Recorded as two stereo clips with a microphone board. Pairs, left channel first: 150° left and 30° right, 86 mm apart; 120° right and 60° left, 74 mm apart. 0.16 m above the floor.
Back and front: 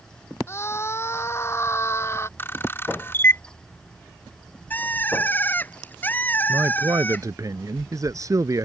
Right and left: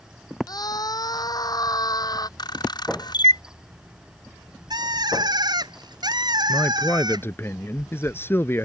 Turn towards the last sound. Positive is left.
turn(degrees=-70)